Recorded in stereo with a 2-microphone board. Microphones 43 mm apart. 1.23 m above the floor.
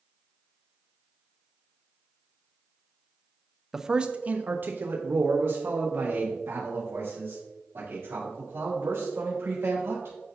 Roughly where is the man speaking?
Centre.